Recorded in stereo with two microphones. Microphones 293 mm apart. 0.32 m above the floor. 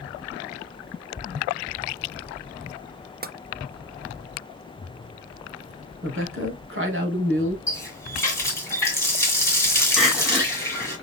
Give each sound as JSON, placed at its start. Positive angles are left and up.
{"t": 3.2, "sound": "tapping", "side_deg": -30, "distance_m": 0.6}
{"t": 6.0, "sound": "a woman speaking", "side_deg": -45, "distance_m": 1.9}
{"t": 7.7, "sound": "a running tap", "side_deg": 10, "distance_m": 2.0}
{"t": 10.0, "sound": "crying", "side_deg": 0, "distance_m": 1.4}